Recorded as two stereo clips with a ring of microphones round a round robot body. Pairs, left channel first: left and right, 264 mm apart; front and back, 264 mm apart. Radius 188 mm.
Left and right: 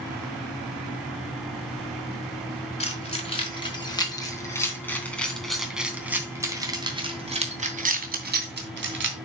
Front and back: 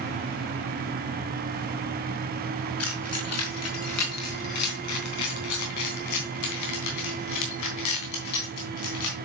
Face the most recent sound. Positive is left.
turn(degrees=-50)